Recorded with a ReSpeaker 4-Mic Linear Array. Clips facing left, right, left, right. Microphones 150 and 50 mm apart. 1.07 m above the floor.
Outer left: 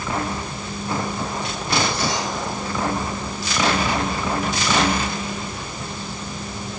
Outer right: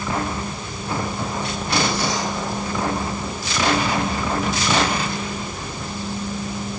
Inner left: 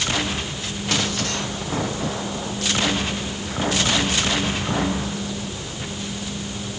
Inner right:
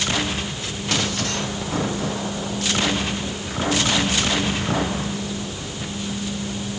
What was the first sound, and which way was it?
Only background noise.